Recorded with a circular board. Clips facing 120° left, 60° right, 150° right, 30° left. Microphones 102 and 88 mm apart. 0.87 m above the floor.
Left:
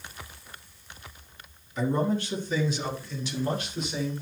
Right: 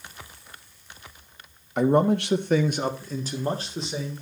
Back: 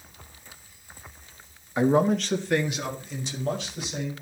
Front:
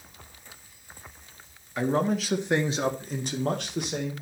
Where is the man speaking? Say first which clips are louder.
Right 6 dB, back 4 dB; 80° right, 1.4 m; by 4.1 s 5° left, 3 m.